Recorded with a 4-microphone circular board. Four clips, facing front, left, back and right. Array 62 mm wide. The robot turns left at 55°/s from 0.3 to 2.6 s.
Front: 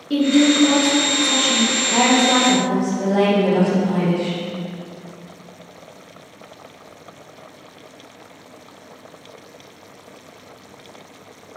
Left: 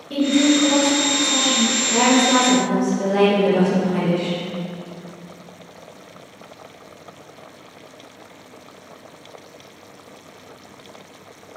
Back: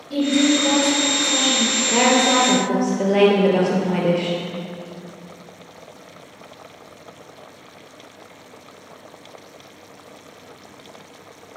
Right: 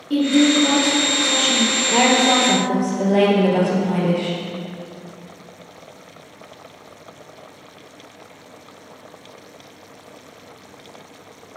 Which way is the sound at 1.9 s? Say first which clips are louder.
Even, even; 125° right.